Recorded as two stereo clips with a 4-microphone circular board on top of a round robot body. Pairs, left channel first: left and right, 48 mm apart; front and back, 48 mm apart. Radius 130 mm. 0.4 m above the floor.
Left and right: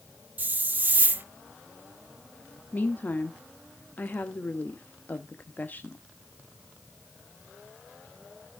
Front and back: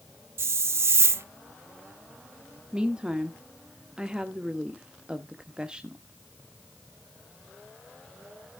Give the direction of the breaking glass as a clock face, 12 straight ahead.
No breaking glass in this recording.